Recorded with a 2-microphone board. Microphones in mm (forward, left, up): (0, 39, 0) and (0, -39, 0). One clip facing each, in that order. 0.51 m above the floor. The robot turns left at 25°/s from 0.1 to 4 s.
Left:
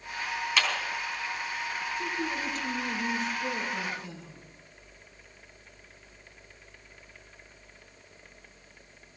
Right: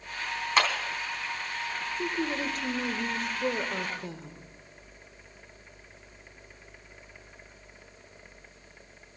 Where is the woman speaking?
55° right, 1.5 m; by 4.4 s 105° right, 1.5 m.